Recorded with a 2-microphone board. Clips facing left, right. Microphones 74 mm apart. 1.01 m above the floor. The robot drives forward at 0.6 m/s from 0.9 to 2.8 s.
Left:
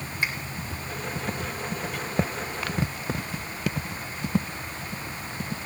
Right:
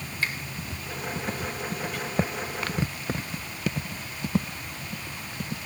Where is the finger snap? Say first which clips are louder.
Left 1 dB; 20° left (ahead or behind), 3 m.